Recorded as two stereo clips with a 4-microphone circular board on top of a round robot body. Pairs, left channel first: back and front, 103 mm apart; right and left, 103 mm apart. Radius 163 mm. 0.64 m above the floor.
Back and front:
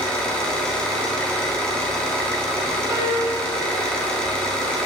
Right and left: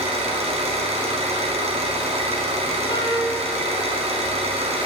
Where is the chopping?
No chopping in this recording.